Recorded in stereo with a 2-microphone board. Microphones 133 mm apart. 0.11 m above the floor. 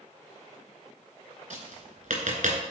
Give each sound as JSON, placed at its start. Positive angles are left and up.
{"t": 1.5, "sound": "tapping", "side_deg": -70, "distance_m": 2.0}